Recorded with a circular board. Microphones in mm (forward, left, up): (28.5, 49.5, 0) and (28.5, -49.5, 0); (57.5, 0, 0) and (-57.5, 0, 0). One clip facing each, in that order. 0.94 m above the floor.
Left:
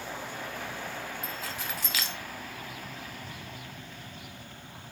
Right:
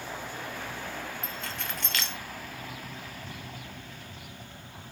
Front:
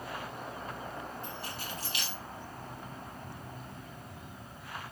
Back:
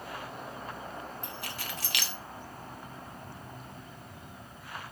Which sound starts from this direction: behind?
Keys jangling, at 1.2 s.